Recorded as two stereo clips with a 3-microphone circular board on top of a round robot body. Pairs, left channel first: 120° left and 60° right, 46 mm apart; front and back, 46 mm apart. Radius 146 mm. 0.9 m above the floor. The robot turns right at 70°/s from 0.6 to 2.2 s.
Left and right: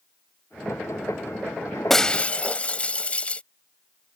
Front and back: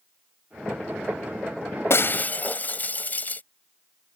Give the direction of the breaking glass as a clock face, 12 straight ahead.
11 o'clock.